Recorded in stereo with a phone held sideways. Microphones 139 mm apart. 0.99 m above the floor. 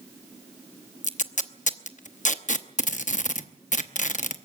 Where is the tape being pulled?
60° left (ahead or behind), 0.8 m.